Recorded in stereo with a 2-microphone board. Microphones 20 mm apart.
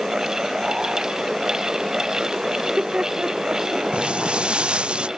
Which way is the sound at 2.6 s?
70° right (ahead or behind).